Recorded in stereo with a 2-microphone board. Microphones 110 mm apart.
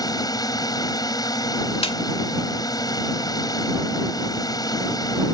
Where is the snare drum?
60° left (ahead or behind).